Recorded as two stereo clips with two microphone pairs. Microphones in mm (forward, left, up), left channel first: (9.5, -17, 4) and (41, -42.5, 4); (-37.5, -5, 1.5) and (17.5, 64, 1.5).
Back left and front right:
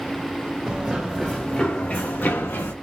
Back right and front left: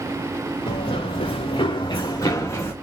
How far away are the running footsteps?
About 1.2 m.